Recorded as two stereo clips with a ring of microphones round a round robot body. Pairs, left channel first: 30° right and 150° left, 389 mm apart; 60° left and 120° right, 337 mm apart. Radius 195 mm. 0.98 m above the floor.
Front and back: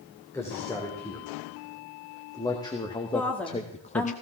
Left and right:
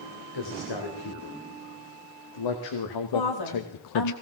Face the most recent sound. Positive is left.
turn(degrees=55)